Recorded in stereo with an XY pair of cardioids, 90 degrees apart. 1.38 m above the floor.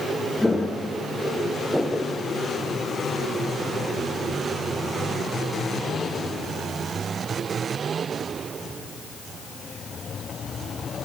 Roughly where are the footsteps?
Ahead.